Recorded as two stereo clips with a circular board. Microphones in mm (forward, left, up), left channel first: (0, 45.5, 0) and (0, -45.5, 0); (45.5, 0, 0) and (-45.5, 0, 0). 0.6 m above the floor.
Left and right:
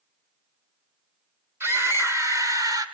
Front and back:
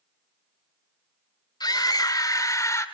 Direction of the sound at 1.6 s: 30° right.